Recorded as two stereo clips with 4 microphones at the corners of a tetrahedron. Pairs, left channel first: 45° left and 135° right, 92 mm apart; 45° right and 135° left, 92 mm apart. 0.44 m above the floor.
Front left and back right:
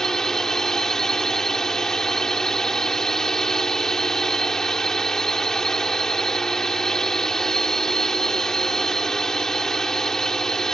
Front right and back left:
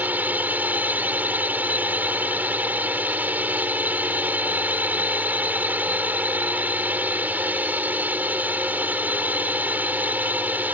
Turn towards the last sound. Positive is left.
turn(degrees=115)